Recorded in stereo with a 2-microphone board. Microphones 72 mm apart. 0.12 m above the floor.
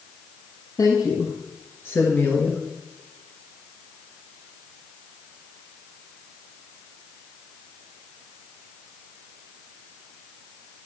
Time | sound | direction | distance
0.8 | a woman speaking | 45° left (ahead or behind) | 2.5 m